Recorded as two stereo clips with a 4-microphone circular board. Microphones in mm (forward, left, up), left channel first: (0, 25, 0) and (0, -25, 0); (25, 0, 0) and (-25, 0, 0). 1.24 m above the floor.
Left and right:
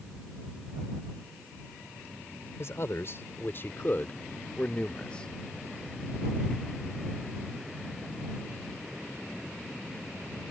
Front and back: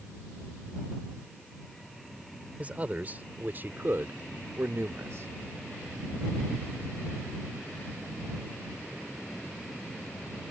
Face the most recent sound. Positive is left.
turn(degrees=160)